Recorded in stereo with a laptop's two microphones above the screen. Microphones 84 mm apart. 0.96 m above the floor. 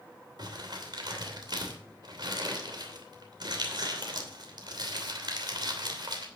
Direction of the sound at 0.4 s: 60° right (ahead or behind).